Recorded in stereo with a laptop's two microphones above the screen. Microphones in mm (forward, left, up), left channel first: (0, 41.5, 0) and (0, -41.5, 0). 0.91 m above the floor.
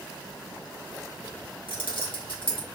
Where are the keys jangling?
85° left, 0.9 m.